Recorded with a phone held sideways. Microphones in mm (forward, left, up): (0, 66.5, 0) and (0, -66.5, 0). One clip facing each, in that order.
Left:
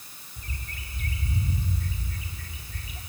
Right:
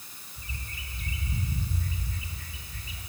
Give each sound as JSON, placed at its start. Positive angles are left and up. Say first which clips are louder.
{"t": 0.4, "sound": "a bird", "louder": "left 2 dB", "side_deg": 70, "distance_m": 3.0}